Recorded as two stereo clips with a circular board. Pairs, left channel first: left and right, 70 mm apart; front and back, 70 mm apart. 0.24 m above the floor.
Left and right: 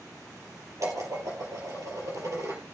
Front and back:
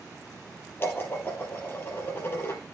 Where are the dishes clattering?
55° right, 4 m.